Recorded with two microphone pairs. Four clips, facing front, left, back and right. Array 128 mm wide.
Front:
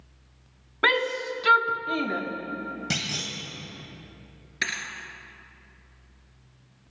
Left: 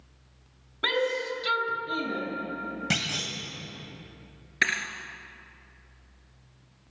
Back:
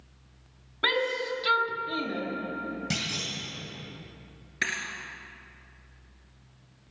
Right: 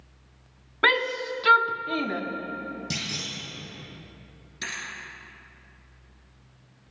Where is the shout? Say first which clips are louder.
Right 2 dB, front 3 dB; 60° right, 1.0 m.